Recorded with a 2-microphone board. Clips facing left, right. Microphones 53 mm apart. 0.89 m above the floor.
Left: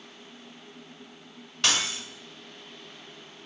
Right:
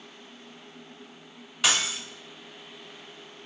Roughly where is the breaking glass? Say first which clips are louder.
Right 1 dB; centre.